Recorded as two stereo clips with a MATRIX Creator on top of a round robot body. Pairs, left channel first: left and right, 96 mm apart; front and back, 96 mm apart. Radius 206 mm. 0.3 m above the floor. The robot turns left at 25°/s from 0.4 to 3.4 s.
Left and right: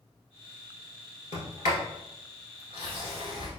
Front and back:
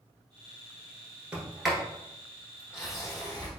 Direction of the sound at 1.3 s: 100° left.